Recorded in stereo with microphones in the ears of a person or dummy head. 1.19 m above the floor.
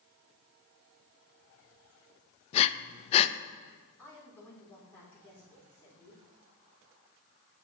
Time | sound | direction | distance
2.5 | breathing | 40° left (ahead or behind) | 0.5 m
4.0 | a woman speaking | 10° left (ahead or behind) | 4 m